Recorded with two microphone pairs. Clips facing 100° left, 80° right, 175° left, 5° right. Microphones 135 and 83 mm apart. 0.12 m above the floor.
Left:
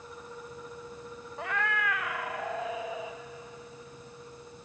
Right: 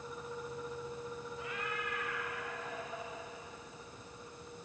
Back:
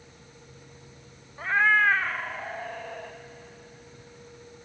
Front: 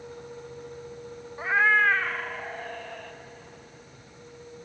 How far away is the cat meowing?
About 0.6 m.